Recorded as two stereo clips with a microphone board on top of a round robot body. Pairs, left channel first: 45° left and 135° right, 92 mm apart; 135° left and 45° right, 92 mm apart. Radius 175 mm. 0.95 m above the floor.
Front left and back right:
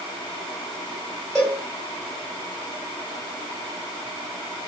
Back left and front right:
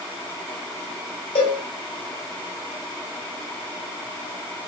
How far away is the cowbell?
About 1.1 m.